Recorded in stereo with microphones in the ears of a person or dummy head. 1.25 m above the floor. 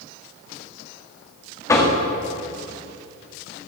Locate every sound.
1.7 s knocking: 20° left (ahead or behind), 1.5 m